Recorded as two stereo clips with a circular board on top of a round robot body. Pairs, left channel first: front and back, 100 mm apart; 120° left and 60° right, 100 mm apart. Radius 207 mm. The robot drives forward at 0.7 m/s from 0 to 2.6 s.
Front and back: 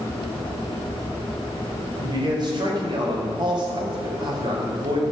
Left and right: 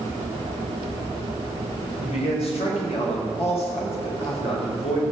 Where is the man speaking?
130° left, 4.5 m; by 5.0 s 135° left, 5 m.